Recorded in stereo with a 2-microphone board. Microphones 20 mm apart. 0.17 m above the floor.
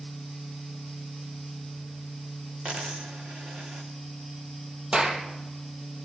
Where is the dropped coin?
80° right, 4 m.